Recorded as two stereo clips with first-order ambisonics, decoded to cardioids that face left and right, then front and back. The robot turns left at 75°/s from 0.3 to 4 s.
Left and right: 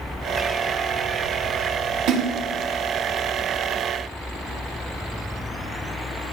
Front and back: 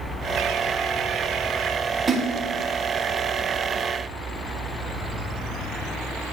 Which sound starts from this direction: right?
A splash, at 2.1 s.